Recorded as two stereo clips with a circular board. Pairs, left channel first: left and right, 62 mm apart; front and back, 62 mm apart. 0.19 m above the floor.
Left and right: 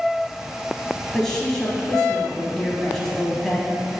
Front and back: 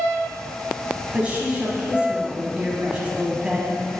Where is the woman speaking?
160° left, 1.0 m.